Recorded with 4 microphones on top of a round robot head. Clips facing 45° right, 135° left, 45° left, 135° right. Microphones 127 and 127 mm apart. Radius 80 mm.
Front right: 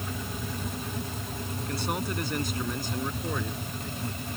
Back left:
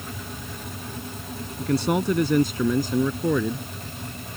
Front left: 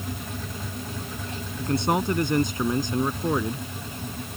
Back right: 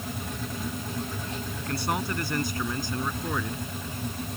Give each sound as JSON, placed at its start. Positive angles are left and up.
{"t": 1.6, "sound": "a man speaking", "azimuth_deg": 115}